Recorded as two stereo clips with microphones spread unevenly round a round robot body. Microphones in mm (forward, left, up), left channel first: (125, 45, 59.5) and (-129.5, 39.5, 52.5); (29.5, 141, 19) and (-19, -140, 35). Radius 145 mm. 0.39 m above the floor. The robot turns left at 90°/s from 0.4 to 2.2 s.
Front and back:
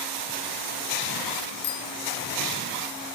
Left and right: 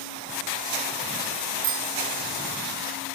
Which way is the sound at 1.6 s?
45° right.